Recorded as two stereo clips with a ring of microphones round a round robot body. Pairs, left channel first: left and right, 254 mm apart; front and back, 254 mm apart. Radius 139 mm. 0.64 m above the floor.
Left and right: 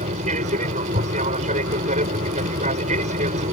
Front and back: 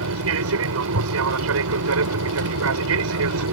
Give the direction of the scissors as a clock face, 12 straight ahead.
I don't hear scissors.